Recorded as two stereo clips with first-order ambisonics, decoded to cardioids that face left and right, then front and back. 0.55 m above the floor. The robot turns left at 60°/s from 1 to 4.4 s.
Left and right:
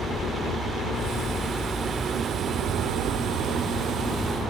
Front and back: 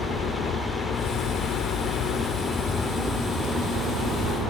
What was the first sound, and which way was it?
A helicopter, 40° left.